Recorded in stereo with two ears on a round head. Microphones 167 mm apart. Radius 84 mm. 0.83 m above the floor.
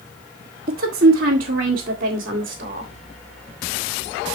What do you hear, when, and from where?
0.7 s a woman speaking: 50° right (ahead or behind), 1.3 m; by 2.9 s 45° right (ahead or behind), 2.5 m